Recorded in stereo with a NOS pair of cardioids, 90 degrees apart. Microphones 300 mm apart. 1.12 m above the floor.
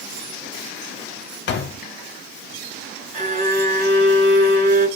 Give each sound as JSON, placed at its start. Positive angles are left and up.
{"t": 1.5, "sound": "a door slam", "azimuth_deg": 40, "distance_m": 0.6}
{"t": 3.1, "sound": "a violin", "azimuth_deg": -25, "distance_m": 2.0}